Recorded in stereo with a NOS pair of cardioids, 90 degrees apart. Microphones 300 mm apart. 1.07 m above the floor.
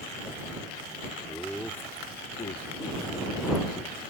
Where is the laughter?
Straight ahead; by 4.0 s 75° left.